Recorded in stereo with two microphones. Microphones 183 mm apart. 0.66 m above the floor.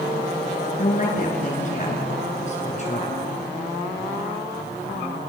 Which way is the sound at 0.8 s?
45° left (ahead or behind).